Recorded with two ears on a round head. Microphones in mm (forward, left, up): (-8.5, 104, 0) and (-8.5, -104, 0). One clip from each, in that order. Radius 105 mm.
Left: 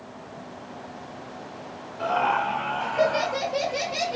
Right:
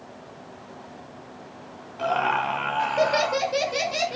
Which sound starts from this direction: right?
Laughter, at 2.0 s.